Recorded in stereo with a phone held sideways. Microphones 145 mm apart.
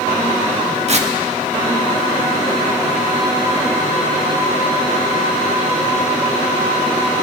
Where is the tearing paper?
50° right (ahead or behind), 1.2 m.